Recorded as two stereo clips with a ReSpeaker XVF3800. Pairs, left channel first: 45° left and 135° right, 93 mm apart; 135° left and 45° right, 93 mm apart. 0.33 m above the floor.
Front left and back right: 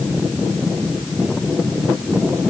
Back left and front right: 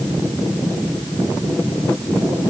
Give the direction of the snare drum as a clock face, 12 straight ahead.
No snare drum in this recording.